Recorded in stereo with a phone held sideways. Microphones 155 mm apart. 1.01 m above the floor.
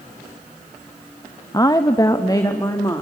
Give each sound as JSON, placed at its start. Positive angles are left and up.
{"t": 1.5, "sound": "a woman speaking", "side_deg": 25, "distance_m": 0.7}